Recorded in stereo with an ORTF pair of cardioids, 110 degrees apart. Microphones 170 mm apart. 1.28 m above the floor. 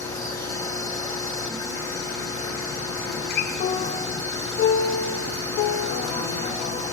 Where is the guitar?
70° left, 0.8 m.